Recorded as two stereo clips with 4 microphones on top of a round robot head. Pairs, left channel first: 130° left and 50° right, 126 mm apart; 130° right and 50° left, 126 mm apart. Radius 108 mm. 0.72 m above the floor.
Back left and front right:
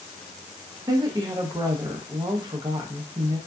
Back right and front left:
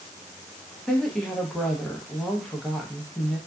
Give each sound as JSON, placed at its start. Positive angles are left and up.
{"t": 0.9, "sound": "a woman speaking", "azimuth_deg": -45, "distance_m": 0.7}